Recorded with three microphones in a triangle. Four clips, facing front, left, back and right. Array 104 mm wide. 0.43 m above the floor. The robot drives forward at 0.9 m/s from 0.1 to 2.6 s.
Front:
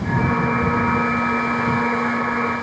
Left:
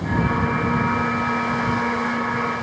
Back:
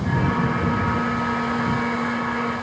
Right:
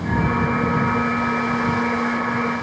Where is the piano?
I don't hear a piano.